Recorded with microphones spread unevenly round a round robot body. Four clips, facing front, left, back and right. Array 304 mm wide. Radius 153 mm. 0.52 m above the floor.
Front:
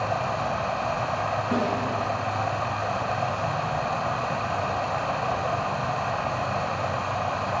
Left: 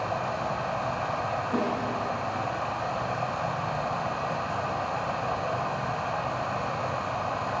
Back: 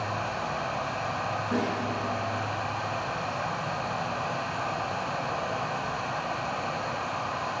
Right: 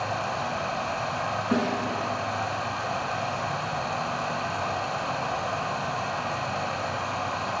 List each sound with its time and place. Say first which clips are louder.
0.0 s running water: even, front 5 dB; straight ahead, 1.2 m
1.5 s a snare drum: right 3 dB, front 2 dB; 75° right, 3.5 m